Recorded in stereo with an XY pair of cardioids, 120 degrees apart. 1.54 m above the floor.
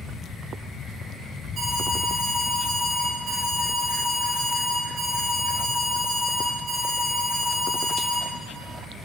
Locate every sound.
1.6 s an alarm: 30° right, 4.5 m